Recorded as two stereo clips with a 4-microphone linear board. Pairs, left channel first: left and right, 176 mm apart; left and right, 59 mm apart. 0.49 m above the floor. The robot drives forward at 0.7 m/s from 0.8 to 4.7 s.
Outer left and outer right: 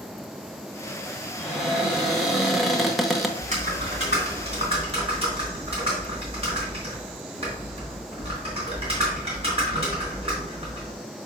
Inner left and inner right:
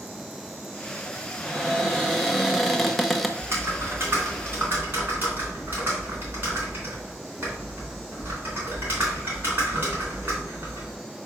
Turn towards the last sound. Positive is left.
turn(degrees=-35)  # may be behind; listen again after turning